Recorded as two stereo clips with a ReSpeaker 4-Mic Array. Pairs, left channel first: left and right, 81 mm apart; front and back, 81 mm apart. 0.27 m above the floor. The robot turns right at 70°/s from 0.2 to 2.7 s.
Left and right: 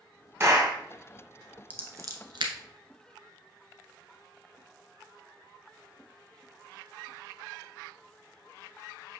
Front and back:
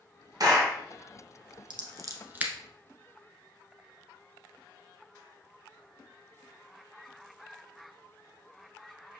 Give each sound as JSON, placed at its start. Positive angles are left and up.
{"t": 0.4, "sound": "a clap", "azimuth_deg": -145, "distance_m": 2.0}
{"t": 1.7, "sound": "scissors", "azimuth_deg": -160, "distance_m": 1.1}